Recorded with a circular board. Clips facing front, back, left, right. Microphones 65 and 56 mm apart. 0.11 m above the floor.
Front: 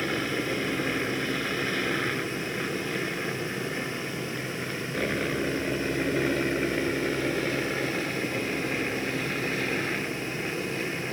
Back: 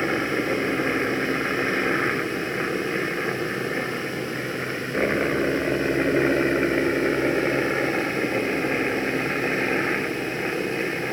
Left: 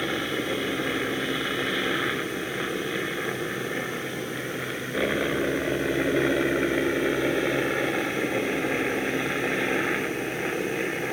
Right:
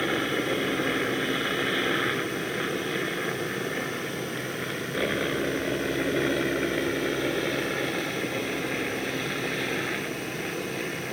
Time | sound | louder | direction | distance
0.0 | a helicopter | back 5 dB, right 1 dB | 165° right | ?